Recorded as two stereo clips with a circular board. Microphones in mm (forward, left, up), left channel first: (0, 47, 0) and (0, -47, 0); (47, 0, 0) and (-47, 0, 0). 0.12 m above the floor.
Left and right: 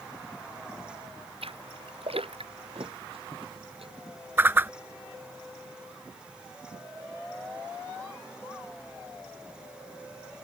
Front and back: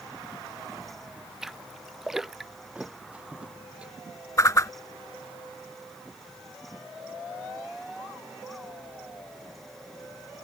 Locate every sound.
1.4 s a splash: 95° right
2.8 s a thud: 100° right
4.4 s a whoosh: 35° right